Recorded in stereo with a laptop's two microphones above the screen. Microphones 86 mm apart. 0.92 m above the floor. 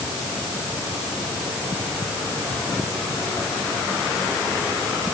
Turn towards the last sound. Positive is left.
No sound to turn to.